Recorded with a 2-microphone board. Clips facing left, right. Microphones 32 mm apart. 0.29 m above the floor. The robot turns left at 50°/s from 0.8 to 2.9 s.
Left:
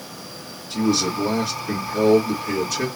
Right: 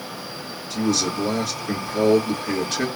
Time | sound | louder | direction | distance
0.7 | a man speaking | left 2 dB | 45° left | 1.9 m